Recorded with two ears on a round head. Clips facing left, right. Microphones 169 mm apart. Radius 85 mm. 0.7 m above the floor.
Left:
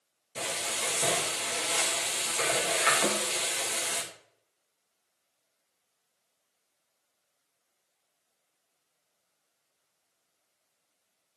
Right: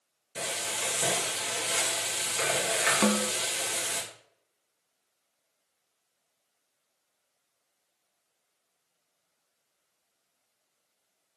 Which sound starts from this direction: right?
A snare drum, at 3.0 s.